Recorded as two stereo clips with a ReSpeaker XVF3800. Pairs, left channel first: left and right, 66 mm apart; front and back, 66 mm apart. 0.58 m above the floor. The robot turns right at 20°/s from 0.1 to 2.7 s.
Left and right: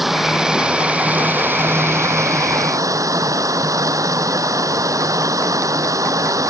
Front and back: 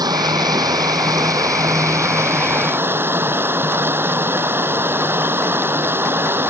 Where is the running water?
175° right; by 6.5 s 125° right.